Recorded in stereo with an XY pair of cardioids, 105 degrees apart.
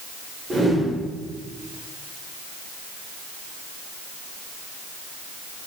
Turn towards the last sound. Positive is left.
turn(degrees=-15)